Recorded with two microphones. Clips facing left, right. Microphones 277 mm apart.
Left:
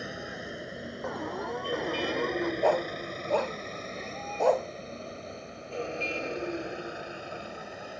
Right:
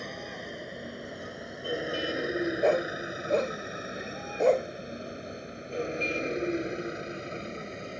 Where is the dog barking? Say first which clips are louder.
Right 1 dB; 25° right (ahead or behind).